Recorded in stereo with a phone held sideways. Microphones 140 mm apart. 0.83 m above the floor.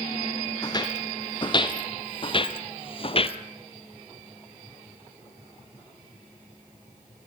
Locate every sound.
0.6 s footsteps: 30° left (ahead or behind), 2 m; by 3.4 s 45° left (ahead or behind), 1.1 m